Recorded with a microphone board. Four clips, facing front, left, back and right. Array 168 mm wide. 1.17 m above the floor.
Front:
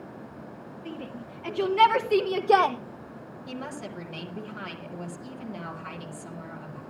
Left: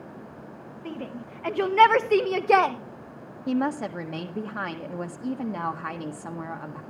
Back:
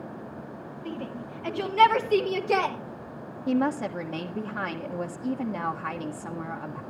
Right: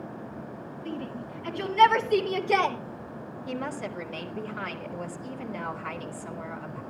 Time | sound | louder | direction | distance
0.8 | a shout | even, back 3 dB | 100° left | 2 m
3.5 | a woman speaking | left 8 dB, back 12 dB | 125° left | 1.7 m